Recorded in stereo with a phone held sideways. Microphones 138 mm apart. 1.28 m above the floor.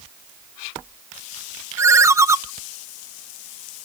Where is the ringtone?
20° right (ahead or behind), 0.5 m.